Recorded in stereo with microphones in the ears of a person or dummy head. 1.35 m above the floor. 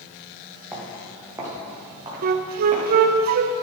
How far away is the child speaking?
No child speaking in this recording.